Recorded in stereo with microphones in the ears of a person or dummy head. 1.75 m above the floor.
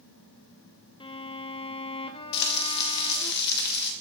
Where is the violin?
30° left (ahead or behind), 0.7 m.